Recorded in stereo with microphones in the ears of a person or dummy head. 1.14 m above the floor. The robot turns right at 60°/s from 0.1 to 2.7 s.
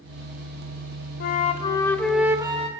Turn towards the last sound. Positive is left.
turn(degrees=-150)